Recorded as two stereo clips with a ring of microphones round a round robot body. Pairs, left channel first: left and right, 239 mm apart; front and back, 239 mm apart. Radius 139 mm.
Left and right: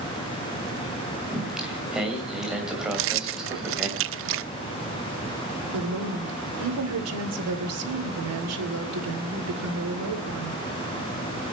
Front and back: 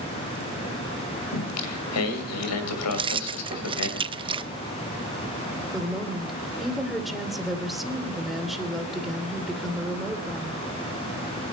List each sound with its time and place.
1.3 s singing: 5° right, 2.5 m
2.9 s keys jangling: 110° right, 0.5 m
5.7 s a woman speaking: 90° right, 2.5 m